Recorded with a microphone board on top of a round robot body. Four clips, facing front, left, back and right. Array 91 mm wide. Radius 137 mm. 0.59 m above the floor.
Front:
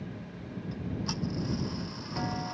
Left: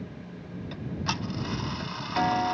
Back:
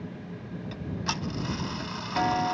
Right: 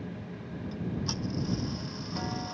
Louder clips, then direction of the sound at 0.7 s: Left 2 dB, back 2 dB; 130° left.